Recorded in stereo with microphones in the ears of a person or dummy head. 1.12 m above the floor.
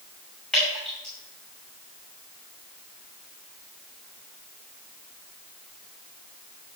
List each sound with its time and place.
0.5 s dripping: centre (ahead or behind), 6.5 m